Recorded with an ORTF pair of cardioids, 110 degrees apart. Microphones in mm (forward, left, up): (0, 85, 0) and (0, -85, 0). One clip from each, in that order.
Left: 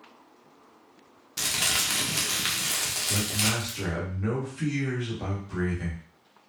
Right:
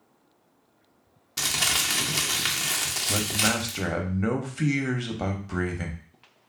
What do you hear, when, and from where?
1.4 s crumpling: 10° right, 0.8 m
3.1 s a man speaking: 40° right, 0.9 m